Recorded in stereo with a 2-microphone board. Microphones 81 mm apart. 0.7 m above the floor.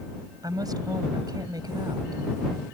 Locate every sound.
0.4 s a woman speaking: 55° right (ahead or behind)